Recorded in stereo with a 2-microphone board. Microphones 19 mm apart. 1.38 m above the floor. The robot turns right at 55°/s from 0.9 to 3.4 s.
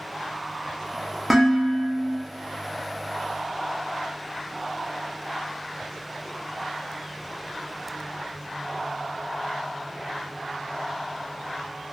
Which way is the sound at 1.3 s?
165° right.